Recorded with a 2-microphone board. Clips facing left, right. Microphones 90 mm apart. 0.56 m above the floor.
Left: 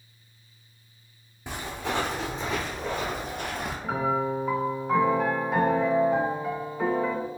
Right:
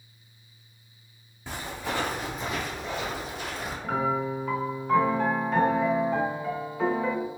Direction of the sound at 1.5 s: 20° left (ahead or behind).